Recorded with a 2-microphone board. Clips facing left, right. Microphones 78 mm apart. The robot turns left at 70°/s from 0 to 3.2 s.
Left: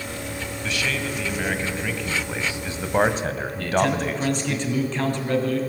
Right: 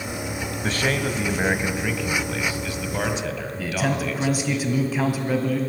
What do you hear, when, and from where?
0.6 s a man speaking: 85° right, 1.6 m; by 4.6 s 100° left, 1.6 m
3.6 s a man speaking: 10° right (ahead or behind), 2 m